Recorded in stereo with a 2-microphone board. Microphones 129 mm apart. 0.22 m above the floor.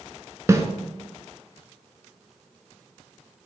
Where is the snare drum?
25° right (ahead or behind), 0.5 m.